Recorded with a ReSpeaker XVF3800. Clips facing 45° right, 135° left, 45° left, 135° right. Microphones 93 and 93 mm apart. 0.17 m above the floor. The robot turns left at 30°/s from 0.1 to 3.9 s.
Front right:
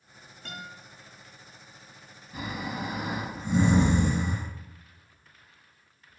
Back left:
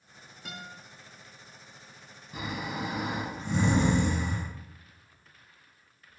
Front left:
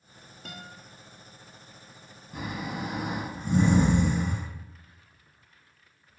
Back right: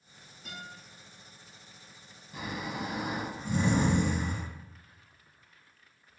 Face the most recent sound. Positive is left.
turn(degrees=20)